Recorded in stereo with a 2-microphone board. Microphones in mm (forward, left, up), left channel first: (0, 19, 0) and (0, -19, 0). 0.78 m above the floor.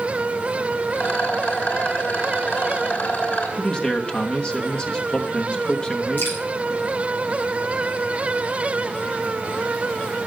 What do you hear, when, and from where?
0.9 s a rattle: 50° left (ahead or behind), 2.5 m
3.6 s a man speaking: 25° left (ahead or behind), 1.2 m
6.2 s dripping: 65° left (ahead or behind), 6 m